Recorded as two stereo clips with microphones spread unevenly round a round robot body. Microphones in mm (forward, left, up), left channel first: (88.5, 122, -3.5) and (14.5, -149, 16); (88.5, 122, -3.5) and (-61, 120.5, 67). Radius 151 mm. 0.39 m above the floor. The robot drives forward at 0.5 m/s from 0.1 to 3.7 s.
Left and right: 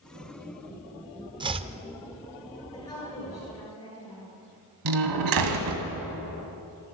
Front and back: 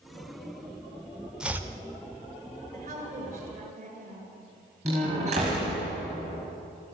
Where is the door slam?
110° right, 2 m.